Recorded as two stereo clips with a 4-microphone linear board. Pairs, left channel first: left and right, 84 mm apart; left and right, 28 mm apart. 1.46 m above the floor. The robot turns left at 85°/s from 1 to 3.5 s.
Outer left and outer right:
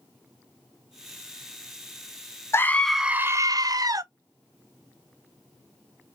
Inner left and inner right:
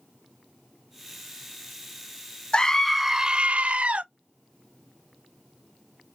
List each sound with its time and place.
2.5 s a scream: 35° left, 0.6 m; by 4.0 s 50° right, 0.6 m